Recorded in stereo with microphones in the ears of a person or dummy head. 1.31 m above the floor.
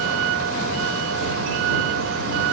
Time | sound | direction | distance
0.0 | a vehicle | 75° right (ahead or behind) | ?